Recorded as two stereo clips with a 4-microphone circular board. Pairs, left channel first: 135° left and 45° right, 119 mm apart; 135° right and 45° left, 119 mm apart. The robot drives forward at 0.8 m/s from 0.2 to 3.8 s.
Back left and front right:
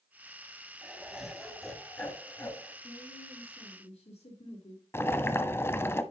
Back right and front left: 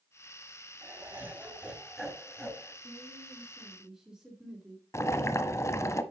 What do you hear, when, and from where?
0.8 s laughter: 20° left, 1.8 m; by 2.7 s 160° left, 1.8 m
2.8 s a woman speaking: 115° left, 3 m; by 4.8 s 130° left, 3.5 m
4.9 s boiling: 175° right, 0.9 m